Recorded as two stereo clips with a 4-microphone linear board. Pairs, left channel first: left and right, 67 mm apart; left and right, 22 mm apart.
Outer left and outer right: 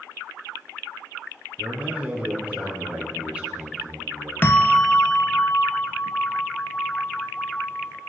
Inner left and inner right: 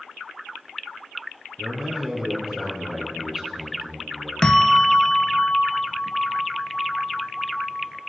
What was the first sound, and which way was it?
A man speaking, 15° right (ahead or behind).